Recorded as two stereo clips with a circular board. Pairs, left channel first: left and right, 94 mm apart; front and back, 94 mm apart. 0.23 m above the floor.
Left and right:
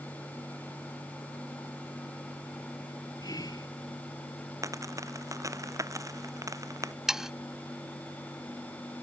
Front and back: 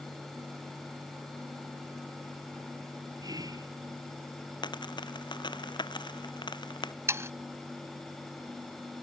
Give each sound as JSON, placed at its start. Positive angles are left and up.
{"t": 3.2, "sound": "whispering", "azimuth_deg": 135}
{"t": 4.6, "sound": "a dropped coin", "azimuth_deg": -35}
{"t": 7.1, "sound": "sawing", "azimuth_deg": -170}